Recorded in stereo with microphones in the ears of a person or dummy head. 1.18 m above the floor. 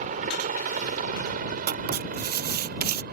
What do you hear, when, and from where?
0.0 s a helicopter: 40° right (ahead or behind); by 3.1 s 50° right (ahead or behind)
1.7 s writing: 50° right (ahead or behind)